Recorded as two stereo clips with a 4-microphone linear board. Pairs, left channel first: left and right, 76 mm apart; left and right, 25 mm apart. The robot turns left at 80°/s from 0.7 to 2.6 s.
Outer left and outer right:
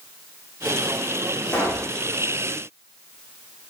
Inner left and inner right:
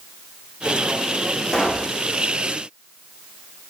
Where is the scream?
No scream in this recording.